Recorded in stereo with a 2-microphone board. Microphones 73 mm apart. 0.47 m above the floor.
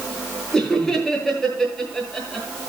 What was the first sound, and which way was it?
Laughter, 5° left (ahead or behind).